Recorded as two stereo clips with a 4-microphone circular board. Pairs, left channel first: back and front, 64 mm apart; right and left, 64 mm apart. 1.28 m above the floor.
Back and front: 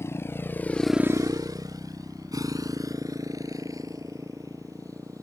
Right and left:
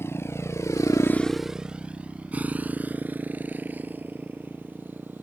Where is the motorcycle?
135° right; by 5.2 s 30° left.